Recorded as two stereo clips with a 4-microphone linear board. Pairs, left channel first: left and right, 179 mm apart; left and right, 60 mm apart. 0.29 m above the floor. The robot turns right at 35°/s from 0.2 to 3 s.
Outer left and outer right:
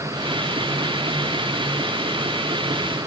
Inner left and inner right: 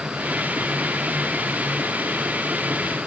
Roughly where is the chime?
I don't hear a chime.